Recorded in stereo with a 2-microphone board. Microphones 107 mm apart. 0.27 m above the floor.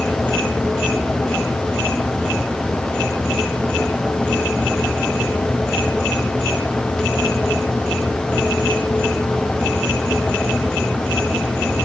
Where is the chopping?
I don't hear chopping.